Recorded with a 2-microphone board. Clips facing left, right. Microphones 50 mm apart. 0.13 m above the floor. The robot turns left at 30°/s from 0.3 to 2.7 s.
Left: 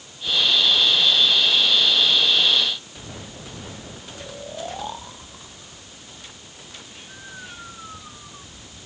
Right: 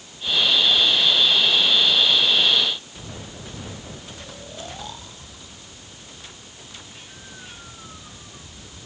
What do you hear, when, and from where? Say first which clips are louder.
4.1 s snoring: left 4 dB; 25° left (ahead or behind)